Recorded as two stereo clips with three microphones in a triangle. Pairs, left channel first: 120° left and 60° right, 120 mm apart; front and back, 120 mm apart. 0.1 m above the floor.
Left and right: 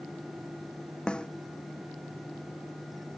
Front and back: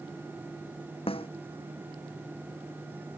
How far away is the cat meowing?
I don't hear a cat meowing.